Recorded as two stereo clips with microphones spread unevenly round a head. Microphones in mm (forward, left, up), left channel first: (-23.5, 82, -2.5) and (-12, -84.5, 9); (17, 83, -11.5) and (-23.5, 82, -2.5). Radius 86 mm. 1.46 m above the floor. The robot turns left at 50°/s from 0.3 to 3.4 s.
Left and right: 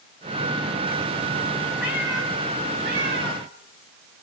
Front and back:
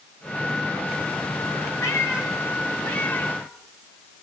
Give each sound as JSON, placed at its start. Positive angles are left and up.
{"t": 1.8, "sound": "a cat meowing", "azimuth_deg": 0, "distance_m": 4.5}